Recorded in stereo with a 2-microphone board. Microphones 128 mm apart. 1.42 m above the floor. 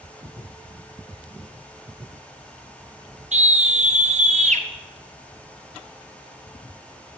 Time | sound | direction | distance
3.3 | a scream | 65° right (ahead or behind) | 0.5 m